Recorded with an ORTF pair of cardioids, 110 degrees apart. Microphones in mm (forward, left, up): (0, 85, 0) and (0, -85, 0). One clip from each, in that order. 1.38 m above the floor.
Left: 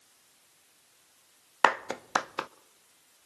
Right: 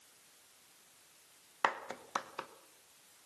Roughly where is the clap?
Ahead left.